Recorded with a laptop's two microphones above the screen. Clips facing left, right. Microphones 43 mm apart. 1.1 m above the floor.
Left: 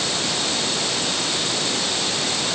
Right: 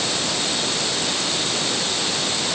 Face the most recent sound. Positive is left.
No sound to turn to.